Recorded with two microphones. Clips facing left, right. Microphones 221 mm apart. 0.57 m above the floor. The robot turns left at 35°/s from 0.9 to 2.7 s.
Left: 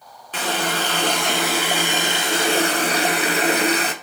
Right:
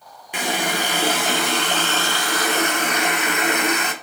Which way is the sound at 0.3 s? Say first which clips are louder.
Even; 165° right.